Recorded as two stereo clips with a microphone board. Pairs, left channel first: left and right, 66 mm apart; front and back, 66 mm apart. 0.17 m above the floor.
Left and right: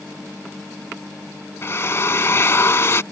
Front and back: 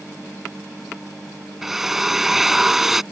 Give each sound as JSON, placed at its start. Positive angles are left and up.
{"t": 1.6, "sound": "a drill", "azimuth_deg": 100}